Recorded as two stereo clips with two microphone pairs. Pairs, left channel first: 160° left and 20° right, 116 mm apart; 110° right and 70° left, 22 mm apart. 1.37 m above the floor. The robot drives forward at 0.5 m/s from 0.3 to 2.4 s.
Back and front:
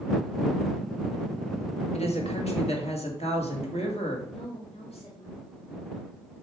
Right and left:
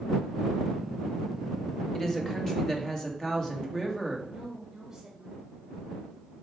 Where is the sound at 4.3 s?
140° left, 2.5 m.